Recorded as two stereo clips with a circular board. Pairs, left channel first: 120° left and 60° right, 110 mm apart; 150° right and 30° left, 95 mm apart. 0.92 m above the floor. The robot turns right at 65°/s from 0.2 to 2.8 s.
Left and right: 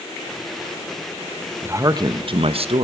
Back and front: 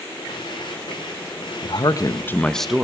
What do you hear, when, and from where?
1.6 s a man speaking: 130° right, 0.6 m; by 2.8 s 55° right, 0.6 m